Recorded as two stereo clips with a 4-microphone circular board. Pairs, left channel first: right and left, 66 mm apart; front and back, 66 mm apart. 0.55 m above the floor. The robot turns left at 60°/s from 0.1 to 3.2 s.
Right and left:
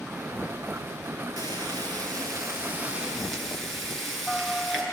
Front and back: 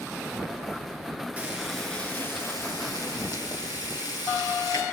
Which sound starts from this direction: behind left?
Frying, at 1.4 s.